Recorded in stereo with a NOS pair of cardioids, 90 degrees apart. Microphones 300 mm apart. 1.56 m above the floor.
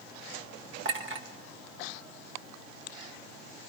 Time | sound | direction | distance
0.8 | a clink | 45° right | 1.7 m